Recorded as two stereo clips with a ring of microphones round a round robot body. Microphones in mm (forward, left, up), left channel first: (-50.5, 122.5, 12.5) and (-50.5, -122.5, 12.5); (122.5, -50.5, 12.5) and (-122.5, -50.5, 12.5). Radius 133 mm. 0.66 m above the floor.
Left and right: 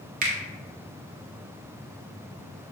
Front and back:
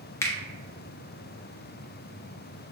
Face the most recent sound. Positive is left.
turn(degrees=-70)